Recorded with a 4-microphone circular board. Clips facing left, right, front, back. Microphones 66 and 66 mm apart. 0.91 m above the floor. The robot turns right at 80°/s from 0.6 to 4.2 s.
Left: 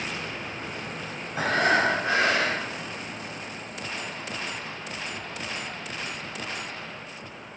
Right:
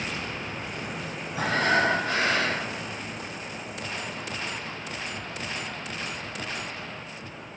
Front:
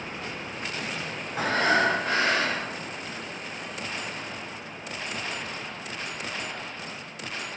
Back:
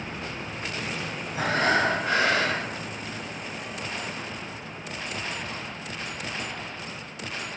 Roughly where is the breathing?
Ahead left.